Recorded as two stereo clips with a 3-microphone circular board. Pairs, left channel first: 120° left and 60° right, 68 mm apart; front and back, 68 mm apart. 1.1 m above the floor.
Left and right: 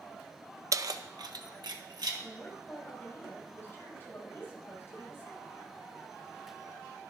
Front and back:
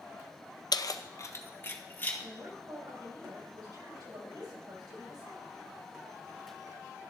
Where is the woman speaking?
175° left, 5 m.